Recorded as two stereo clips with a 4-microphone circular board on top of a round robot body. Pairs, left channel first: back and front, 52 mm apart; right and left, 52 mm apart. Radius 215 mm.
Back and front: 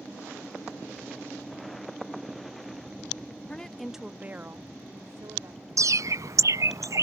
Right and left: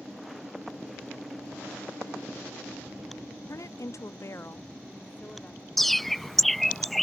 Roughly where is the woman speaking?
Right.